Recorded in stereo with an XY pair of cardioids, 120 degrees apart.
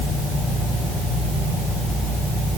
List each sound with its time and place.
Only background noise.